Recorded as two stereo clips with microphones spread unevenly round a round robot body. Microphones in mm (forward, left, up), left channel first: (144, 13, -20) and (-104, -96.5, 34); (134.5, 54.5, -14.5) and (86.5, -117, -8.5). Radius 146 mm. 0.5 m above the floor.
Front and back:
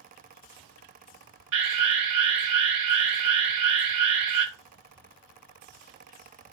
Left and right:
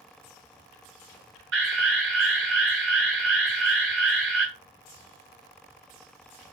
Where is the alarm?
140° right, 5 m.